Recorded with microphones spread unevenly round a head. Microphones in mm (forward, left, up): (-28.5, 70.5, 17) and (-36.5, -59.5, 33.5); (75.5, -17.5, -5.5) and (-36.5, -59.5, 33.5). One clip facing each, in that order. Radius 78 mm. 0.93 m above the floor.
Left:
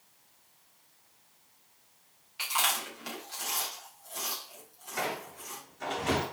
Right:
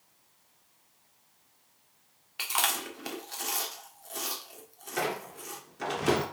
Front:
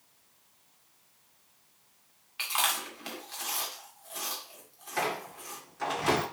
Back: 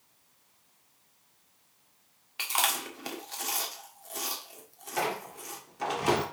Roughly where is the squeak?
Right.